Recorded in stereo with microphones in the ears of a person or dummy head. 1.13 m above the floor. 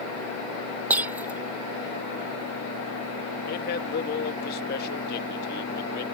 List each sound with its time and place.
0.9 s breaking glass: 10° right (ahead or behind)
3.5 s a man speaking: 50° left (ahead or behind)